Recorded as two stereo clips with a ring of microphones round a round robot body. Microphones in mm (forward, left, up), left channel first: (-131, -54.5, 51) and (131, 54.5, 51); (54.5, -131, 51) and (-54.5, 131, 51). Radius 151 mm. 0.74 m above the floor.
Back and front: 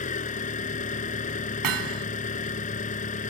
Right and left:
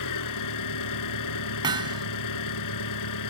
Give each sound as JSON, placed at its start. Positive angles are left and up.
{"t": 0.0, "sound": "an engine running", "azimuth_deg": -90}
{"t": 1.6, "sound": "hammering", "azimuth_deg": 35}